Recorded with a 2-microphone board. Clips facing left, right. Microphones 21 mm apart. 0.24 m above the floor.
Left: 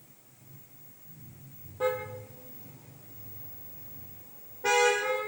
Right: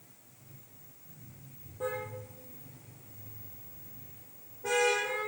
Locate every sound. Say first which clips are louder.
1.8 s a car horn: left 6 dB; 45° left (ahead or behind), 4 m; by 5.2 s 55° left (ahead or behind), 7 m